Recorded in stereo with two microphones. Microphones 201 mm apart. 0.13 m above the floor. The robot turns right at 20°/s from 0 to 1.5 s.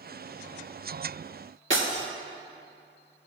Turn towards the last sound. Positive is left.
turn(degrees=-70)  # may be behind; listen again after turning